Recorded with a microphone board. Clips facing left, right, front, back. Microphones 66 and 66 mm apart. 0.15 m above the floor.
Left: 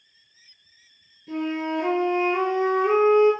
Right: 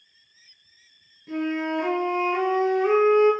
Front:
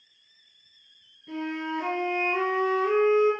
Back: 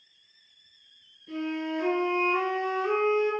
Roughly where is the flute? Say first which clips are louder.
Even, even; ahead right.